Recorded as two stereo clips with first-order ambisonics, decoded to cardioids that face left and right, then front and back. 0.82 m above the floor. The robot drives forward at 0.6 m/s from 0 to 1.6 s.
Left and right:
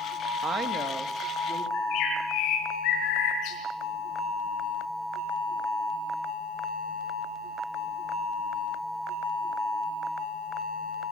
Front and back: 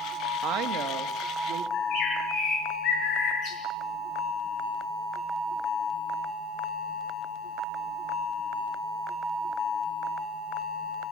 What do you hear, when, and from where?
0.4 s a woman speaking: 150° right, 1.1 m; by 1.6 s 165° right, 1.7 m
1.7 s a bird: 50° left, 7.5 m